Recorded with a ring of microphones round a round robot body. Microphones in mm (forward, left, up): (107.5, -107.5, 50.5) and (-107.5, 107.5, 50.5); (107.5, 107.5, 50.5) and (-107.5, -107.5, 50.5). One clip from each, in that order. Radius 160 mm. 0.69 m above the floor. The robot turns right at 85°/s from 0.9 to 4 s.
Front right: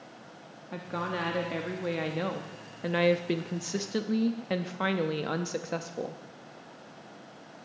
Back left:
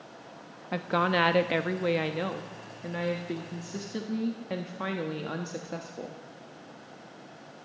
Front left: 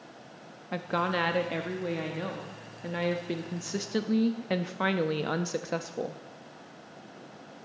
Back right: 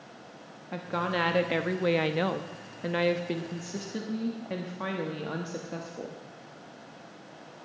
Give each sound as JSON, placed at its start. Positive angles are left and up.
{"t": 0.7, "sound": "a woman speaking", "azimuth_deg": 110, "distance_m": 0.8}